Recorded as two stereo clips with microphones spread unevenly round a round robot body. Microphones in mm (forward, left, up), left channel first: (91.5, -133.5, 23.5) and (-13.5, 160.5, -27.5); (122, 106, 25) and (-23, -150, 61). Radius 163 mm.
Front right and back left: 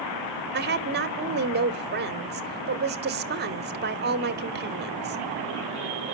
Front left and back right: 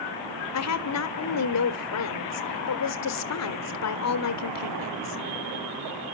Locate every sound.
0.5 s a woman speaking: 60° left, 1.3 m